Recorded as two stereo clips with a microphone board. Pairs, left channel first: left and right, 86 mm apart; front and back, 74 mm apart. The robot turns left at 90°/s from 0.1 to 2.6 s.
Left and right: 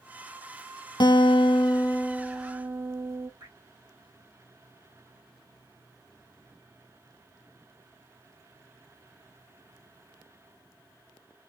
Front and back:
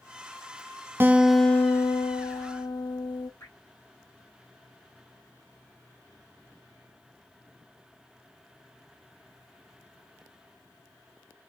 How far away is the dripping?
About 2.5 m.